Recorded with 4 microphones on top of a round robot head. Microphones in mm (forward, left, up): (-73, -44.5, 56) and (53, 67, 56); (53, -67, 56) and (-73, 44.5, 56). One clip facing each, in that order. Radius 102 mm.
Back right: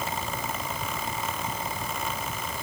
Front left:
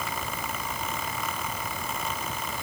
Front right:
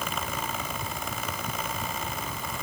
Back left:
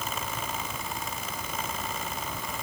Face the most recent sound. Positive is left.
No sound to turn to.